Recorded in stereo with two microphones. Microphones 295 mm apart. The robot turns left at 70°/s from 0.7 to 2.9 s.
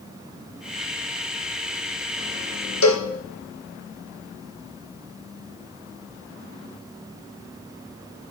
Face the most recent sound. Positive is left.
turn(degrees=80)